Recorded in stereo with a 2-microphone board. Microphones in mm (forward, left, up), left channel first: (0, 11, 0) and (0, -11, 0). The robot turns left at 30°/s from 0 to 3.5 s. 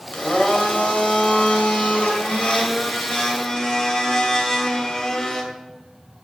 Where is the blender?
130° left, 2.5 m; by 5.4 s 30° left, 2.5 m.